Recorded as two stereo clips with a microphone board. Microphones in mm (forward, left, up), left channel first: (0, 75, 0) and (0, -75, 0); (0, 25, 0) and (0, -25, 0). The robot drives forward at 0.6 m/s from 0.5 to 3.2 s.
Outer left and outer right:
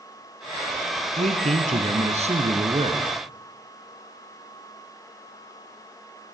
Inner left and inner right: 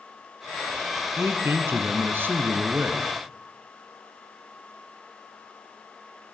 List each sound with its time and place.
1.2 s a man speaking: 55° right (ahead or behind), 2.5 m; by 3.1 s 40° right (ahead or behind), 3 m